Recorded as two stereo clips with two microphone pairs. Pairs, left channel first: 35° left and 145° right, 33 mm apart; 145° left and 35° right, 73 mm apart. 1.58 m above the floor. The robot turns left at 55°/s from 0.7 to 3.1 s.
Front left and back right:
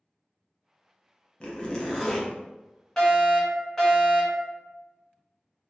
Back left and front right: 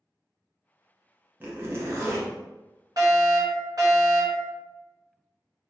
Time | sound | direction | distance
1.4 | a zipper | 5° left | 0.8 m
3.0 | a fire alarm | 35° right | 1.7 m